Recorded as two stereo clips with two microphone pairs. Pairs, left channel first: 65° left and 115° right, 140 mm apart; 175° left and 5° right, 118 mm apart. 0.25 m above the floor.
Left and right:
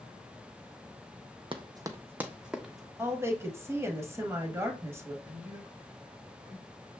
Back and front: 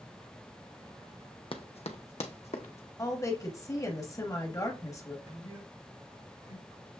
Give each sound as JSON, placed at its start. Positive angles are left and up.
{"t": 1.5, "sound": "running footsteps", "azimuth_deg": -155, "distance_m": 0.5}
{"t": 3.0, "sound": "a woman speaking", "azimuth_deg": -160, "distance_m": 1.0}
{"t": 5.2, "sound": "a man speaking", "azimuth_deg": -35, "distance_m": 2.0}